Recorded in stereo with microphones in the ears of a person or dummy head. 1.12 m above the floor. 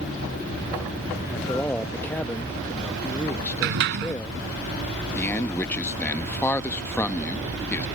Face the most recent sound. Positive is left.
turn(degrees=10)  # may be behind; listen again after turning